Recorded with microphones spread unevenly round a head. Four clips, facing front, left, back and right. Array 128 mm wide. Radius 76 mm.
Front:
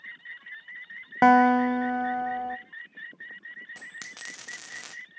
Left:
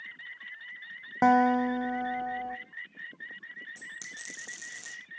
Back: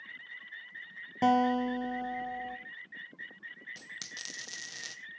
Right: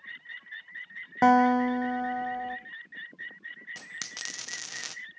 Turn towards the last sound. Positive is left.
turn(degrees=-90)